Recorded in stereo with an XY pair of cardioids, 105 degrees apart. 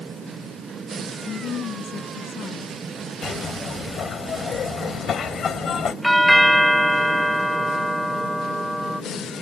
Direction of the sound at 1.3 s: 60° left.